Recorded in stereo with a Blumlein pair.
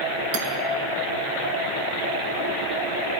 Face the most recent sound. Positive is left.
turn(degrees=-45)